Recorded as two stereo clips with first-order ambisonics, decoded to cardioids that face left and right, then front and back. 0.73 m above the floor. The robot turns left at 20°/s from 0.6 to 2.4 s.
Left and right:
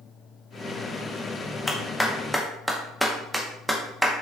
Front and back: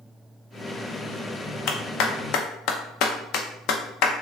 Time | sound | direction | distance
1.7 | a clap | 15° left | 0.6 m